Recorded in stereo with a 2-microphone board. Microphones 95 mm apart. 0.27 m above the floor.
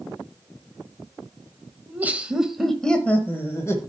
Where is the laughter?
20° right (ahead or behind), 1.1 m; by 3.8 s 30° left (ahead or behind), 1.2 m.